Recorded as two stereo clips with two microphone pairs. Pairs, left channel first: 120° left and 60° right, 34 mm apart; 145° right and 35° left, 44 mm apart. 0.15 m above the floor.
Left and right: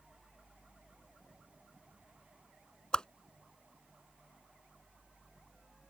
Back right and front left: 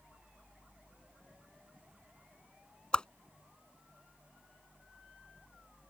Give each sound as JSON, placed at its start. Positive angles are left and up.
{"t": 2.9, "sound": "a whoosh", "azimuth_deg": 170}